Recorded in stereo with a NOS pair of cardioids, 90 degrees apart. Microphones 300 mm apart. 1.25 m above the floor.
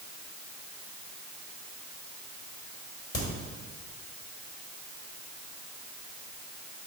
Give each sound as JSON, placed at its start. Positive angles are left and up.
{"t": 3.1, "sound": "a crack", "azimuth_deg": 35, "distance_m": 2.5}